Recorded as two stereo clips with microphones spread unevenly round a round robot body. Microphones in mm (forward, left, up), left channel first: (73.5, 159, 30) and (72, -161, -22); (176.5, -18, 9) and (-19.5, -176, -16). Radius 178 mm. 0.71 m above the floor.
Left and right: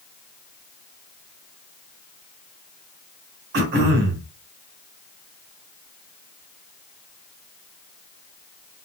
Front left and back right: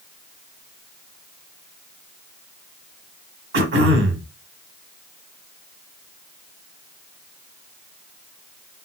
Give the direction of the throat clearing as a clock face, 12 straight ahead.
4 o'clock.